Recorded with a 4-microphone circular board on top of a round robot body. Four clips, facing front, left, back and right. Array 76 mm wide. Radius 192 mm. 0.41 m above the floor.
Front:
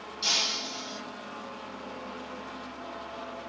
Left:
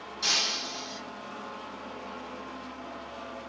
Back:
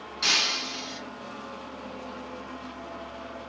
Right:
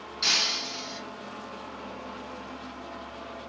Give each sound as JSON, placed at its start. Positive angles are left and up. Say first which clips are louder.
{"t": 0.2, "sound": "breaking glass", "louder": "right 2 dB, back 5 dB", "azimuth_deg": -155, "distance_m": 5.0}